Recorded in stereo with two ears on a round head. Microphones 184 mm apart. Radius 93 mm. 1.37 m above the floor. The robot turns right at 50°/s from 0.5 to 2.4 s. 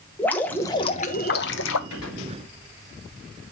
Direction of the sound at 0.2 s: 10° left.